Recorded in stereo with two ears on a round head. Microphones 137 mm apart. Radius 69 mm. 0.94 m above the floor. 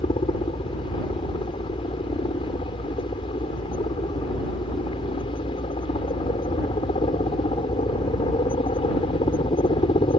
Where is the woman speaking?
No woman speaking in this recording.